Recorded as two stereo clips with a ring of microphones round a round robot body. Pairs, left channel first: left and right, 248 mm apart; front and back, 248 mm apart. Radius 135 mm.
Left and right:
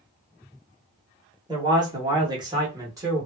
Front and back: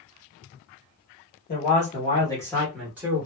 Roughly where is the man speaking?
Ahead right.